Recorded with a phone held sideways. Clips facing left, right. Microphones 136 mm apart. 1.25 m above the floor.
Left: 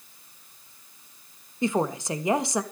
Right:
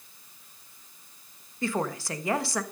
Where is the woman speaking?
20° left (ahead or behind), 1.3 m.